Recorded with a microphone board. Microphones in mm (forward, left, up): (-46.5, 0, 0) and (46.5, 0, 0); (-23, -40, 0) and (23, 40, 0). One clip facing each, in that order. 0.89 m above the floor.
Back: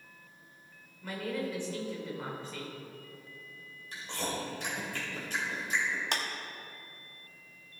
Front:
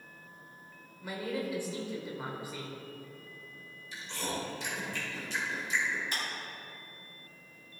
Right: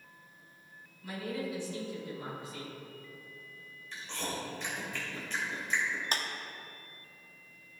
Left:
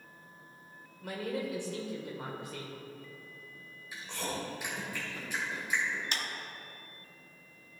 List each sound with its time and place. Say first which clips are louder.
1.0 s a man speaking: even, left 2 dB; 80° left, 2.5 m
3.9 s chewing: back 1 dB, left 1 dB; 140° left, 3 m
6.1 s a clap: back 3 dB, right 3 dB; 170° right, 0.9 m